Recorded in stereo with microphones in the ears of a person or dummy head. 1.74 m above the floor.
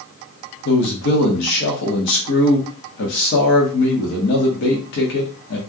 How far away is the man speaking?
About 0.8 m.